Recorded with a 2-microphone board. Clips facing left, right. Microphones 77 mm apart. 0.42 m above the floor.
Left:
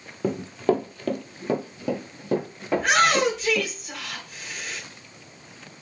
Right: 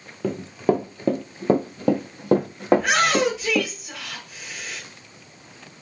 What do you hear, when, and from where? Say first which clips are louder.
0.2 s running footsteps: right 1 dB; 5° left (ahead or behind), 0.7 m; by 3.7 s 80° right, 1.6 m
2.7 s a shout: even; centre (ahead or behind), 1.0 m